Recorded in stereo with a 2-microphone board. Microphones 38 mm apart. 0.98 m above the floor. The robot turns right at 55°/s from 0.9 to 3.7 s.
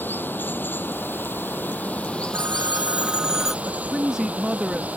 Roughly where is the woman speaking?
Right.